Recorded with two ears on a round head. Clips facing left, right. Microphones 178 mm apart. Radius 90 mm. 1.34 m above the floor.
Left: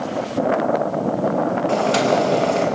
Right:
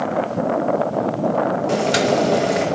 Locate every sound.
1.7 s boiling: 20° right (ahead or behind), 1.8 m